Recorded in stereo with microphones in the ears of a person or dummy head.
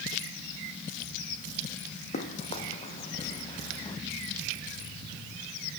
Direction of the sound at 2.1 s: 45° left (ahead or behind).